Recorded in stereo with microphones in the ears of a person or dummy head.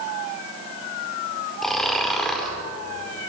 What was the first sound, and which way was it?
Snoring, centre (ahead or behind).